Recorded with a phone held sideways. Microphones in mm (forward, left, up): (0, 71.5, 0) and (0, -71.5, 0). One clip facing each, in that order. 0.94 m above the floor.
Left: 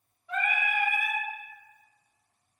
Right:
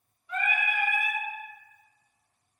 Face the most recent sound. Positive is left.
turn(degrees=75)  # may be behind; listen again after turning